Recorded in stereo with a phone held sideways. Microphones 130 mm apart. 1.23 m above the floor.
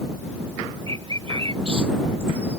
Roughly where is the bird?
Right.